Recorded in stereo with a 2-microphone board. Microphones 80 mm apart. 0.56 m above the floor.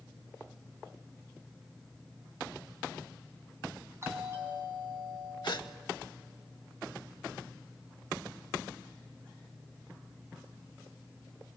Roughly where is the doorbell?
Right.